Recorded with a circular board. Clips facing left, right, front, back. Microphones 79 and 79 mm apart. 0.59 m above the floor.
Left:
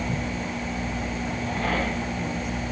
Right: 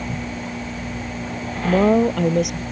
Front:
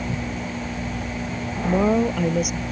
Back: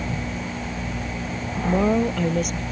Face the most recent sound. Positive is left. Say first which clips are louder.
# right 14 dB, front 1 dB
turn(degrees=-85)